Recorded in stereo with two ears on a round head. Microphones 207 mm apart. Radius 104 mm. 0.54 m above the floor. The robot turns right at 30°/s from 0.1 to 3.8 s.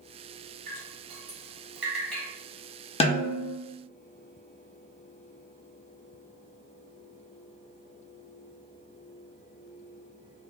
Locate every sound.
0.7 s dripping: 40° right (ahead or behind), 1.3 m; by 2.2 s 5° left (ahead or behind), 1.3 m
3.0 s a snare drum: 25° left (ahead or behind), 0.6 m; by 3.5 s 40° left (ahead or behind), 0.6 m